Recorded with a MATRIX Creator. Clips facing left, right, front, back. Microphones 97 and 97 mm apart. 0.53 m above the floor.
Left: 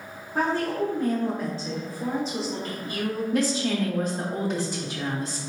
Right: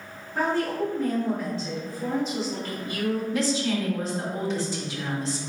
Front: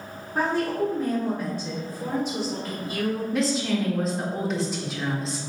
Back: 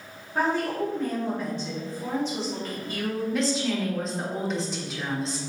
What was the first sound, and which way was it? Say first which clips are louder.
A woman speaking: even, front 1 dB; 75° left.